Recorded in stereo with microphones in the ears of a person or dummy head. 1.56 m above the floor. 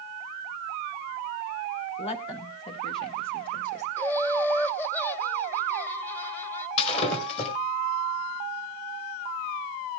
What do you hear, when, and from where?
2.0 s a woman speaking: 35° left (ahead or behind), 1.2 m; by 3.9 s 25° left (ahead or behind), 2.5 m
4.0 s laughter: 10° left (ahead or behind), 1.3 m
6.8 s breaking glass: 35° left (ahead or behind), 5 m